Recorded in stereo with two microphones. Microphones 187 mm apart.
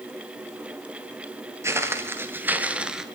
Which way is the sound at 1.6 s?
15° right (ahead or behind).